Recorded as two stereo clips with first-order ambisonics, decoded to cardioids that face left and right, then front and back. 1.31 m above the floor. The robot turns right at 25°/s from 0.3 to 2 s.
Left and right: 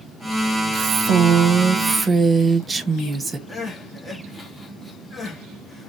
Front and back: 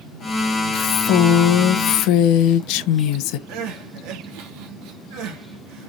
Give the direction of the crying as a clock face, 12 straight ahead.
6 o'clock.